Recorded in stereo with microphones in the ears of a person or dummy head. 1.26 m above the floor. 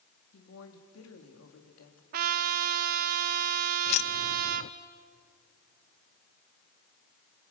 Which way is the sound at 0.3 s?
75° left (ahead or behind).